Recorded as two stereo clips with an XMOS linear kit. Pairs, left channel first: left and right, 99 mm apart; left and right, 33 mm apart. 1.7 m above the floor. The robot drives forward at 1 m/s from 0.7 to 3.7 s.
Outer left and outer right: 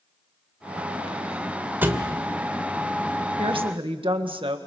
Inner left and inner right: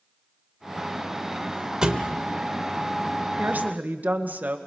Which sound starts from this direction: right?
A woman speaking, at 3.4 s.